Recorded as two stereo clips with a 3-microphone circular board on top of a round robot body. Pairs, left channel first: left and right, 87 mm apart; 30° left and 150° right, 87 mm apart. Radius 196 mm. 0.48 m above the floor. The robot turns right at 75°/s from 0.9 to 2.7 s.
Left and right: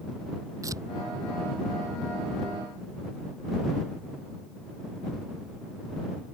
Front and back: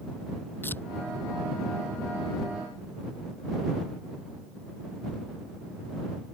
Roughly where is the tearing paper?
Ahead right.